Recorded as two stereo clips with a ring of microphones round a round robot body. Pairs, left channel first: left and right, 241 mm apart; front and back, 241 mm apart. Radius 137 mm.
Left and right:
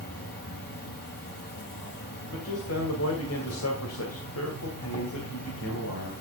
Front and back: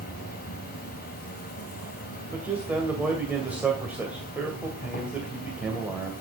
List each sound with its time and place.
0.0 s an insect: 50° left, 3 m
2.3 s a man speaking: 95° left, 2.5 m